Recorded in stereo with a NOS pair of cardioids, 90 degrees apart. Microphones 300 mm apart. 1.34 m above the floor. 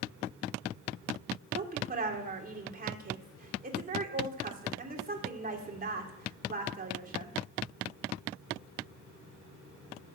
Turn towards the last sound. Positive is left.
turn(degrees=-30)